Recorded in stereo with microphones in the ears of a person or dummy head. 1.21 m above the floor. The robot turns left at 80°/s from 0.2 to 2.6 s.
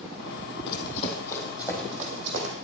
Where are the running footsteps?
60° left (ahead or behind), 3 m; by 2.5 s 70° right (ahead or behind), 3.5 m.